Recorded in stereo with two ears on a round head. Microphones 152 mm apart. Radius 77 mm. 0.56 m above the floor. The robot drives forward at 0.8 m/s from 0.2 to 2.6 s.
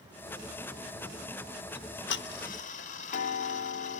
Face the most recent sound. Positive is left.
turn(degrees=45)  # may be behind; listen again after turning